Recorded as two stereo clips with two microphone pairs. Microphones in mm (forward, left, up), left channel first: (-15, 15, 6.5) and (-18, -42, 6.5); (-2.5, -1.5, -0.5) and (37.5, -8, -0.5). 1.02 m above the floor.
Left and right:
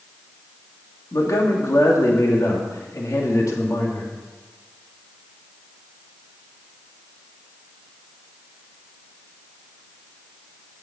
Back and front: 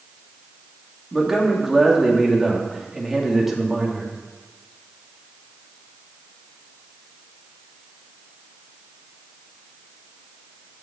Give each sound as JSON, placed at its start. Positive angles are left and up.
{"t": 1.1, "sound": "a man speaking", "azimuth_deg": 75, "distance_m": 2.5}